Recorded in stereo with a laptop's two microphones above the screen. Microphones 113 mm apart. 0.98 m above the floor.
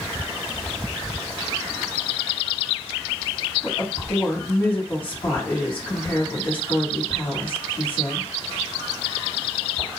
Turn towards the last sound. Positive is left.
turn(degrees=45)  # may be behind; listen again after turning